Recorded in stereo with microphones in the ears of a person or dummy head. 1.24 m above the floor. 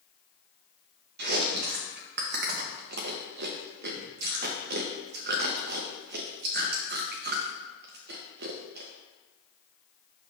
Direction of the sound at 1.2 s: 55° right (ahead or behind).